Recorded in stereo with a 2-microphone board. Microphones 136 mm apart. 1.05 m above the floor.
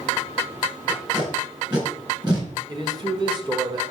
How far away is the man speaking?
About 1.4 m.